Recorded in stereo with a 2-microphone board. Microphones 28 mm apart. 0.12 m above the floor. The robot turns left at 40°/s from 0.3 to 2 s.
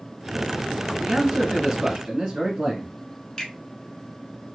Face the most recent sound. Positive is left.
turn(degrees=20)  # may be behind; listen again after turning